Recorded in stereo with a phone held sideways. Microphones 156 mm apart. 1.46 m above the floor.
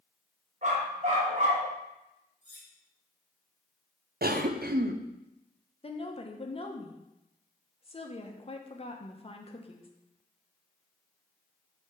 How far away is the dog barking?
About 2.5 m.